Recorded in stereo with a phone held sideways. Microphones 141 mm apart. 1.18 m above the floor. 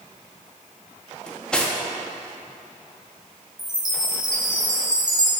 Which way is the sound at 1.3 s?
5° left (ahead or behind).